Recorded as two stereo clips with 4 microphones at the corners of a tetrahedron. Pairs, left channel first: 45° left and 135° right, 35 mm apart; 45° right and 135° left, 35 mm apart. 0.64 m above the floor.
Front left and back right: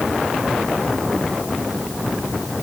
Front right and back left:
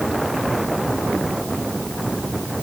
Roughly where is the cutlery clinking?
I don't hear cutlery clinking.